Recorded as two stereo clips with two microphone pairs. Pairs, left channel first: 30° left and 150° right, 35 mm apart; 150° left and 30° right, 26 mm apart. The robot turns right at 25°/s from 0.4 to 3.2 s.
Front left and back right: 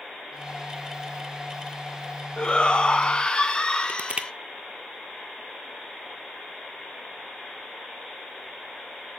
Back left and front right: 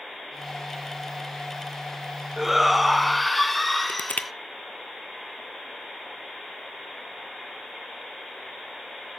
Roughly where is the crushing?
Behind left.